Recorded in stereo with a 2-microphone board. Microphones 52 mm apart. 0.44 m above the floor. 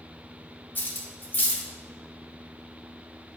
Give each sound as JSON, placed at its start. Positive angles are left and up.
{"t": 0.8, "sound": "cutlery clinking", "side_deg": 40, "distance_m": 0.7}